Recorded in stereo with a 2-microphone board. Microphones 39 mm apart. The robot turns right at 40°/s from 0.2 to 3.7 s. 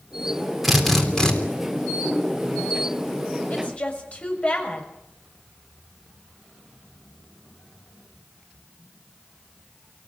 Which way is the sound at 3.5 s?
40° left (ahead or behind).